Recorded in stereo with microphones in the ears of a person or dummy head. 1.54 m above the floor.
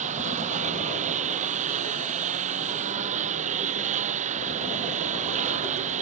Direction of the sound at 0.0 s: 40° right (ahead or behind).